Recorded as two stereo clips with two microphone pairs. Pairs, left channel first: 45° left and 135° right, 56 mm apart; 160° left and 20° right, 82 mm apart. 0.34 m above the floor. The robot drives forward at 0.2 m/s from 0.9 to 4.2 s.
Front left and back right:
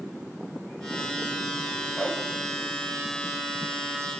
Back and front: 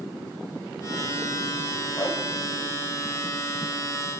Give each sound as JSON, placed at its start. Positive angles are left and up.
{"t": 2.0, "sound": "a whoosh", "azimuth_deg": 175, "distance_m": 2.5}